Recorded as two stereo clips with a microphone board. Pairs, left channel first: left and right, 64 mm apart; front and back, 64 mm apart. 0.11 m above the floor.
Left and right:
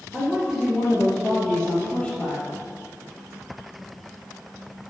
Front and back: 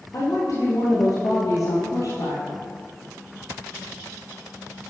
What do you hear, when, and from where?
0.1 s a woman speaking: 15° right, 2 m; by 2.4 s 25° left, 2.5 m